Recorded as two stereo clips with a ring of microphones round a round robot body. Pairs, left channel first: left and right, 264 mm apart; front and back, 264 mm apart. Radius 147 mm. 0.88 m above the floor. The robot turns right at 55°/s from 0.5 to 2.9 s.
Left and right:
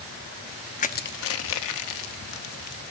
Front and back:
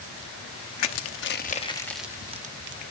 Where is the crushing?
25° left, 0.8 m; by 2.8 s 135° left, 0.8 m.